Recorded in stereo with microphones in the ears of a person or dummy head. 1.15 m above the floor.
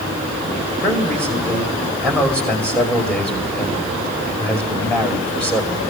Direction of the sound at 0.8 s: 5° left (ahead or behind).